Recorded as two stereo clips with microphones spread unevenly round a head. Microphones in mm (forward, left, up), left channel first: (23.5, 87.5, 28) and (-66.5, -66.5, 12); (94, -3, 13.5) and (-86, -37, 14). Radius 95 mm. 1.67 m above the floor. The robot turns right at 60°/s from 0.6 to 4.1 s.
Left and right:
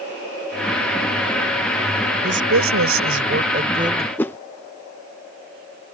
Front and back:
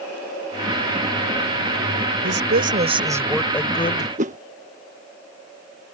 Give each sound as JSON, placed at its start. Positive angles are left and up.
{"t": 2.2, "sound": "a woman speaking", "azimuth_deg": -150}
{"t": 4.2, "sound": "a whoosh", "azimuth_deg": 140}